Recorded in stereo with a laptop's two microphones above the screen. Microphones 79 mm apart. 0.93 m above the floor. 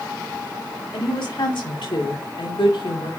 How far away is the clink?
I don't hear a clink.